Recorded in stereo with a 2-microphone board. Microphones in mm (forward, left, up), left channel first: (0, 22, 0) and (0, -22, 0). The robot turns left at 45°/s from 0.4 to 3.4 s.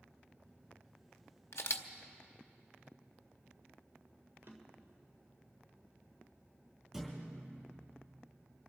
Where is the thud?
10° right (ahead or behind), 5 m.